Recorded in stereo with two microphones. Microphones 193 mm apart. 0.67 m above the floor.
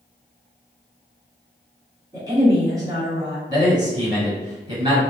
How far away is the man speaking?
About 1.6 m.